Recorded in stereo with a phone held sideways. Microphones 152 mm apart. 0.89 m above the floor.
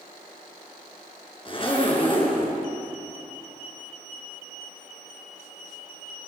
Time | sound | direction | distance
1.4 | a zipper | 35° left (ahead or behind) | 4 m